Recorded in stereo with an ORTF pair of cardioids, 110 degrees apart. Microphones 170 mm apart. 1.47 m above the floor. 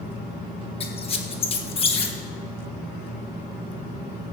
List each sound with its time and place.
0.8 s a squeak: 35° left, 1.3 m